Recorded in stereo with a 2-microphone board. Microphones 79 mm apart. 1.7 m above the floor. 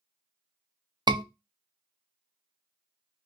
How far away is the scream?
About 0.6 m.